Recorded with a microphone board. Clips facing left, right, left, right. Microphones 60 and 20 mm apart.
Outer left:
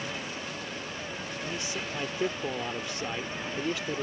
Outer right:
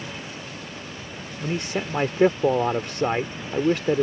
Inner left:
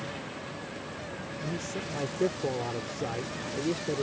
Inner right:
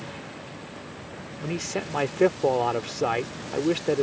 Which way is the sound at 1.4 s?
75° right (ahead or behind).